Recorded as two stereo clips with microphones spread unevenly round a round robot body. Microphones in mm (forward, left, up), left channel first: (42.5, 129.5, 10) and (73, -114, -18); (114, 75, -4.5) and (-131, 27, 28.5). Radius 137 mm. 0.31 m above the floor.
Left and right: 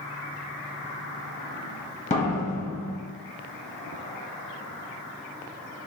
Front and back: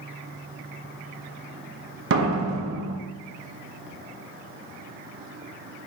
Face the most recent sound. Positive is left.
turn(degrees=165)